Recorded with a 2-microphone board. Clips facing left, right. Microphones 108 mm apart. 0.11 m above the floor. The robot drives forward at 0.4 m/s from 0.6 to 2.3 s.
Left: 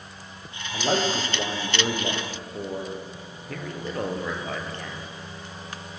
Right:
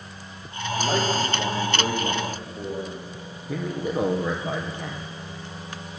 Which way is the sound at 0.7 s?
80° left.